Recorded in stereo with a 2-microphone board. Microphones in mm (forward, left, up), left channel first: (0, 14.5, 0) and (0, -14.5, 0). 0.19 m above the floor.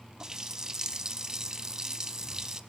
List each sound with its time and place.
0.2 s a running tap: 25° right (ahead or behind), 0.9 m